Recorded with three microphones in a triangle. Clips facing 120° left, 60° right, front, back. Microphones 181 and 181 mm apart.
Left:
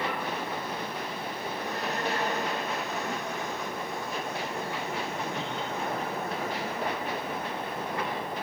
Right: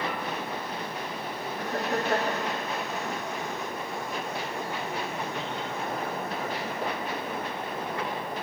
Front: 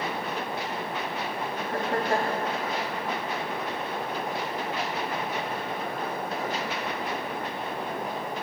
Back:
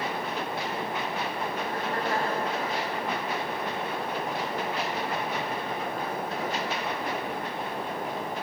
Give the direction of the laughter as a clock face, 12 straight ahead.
1 o'clock.